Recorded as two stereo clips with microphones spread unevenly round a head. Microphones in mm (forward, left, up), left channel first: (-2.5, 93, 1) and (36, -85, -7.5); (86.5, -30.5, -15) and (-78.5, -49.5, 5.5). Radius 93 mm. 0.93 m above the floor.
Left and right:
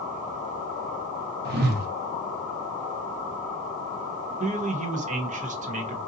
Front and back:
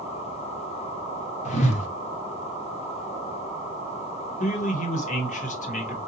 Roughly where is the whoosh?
Ahead right.